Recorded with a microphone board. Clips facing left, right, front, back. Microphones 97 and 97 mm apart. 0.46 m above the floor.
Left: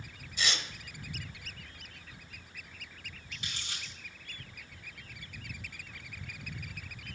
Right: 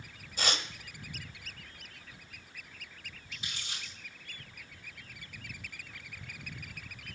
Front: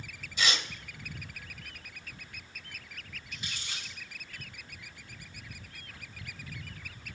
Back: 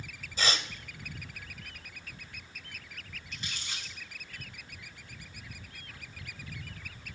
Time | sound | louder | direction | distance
0.4 | tearing paper | right 2 dB, even | 130° right | 0.8 m
3.3 | crumpling | even, even | 80° left | 3.5 m